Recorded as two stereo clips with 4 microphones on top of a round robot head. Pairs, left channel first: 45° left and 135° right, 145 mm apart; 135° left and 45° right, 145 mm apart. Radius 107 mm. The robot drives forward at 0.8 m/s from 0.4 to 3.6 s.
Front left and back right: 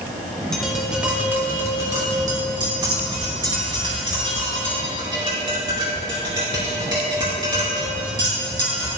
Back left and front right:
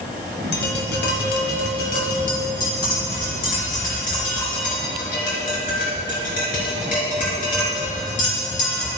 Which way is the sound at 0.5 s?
130° left.